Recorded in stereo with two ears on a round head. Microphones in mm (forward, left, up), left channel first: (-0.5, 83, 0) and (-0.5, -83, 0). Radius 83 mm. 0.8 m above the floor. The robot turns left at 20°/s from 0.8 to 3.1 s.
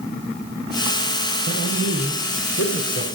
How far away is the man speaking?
About 4 m.